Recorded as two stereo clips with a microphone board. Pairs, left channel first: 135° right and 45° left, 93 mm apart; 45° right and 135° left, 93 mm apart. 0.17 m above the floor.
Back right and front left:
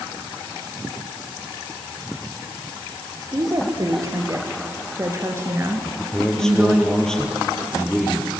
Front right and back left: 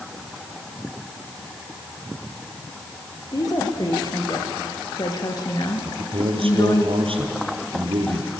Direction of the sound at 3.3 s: Straight ahead.